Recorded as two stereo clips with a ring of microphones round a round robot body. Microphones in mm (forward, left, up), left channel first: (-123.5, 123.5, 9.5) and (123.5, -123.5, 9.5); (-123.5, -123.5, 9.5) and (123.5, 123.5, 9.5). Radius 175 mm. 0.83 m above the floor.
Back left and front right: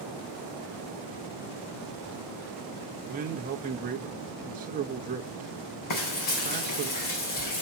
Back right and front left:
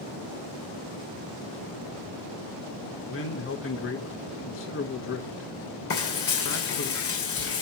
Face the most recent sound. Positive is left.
turn(degrees=170)